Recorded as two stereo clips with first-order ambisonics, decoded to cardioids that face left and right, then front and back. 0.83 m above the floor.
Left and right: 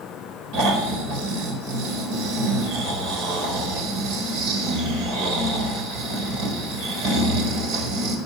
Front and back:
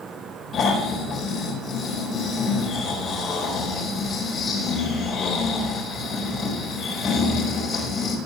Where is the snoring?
65° right, 4 m.